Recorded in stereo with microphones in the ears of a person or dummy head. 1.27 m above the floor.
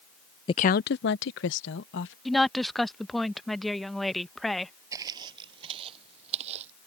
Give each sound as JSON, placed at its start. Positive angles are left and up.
{"t": 0.5, "sound": "a woman speaking", "side_deg": 25}
{"t": 2.2, "sound": "a woman speaking", "side_deg": 0}
{"t": 4.9, "sound": "footsteps", "side_deg": -25}